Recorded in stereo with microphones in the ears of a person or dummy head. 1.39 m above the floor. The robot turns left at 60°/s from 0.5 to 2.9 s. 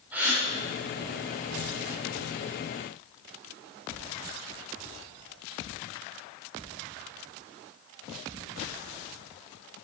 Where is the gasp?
10° right (ahead or behind), 6.5 m.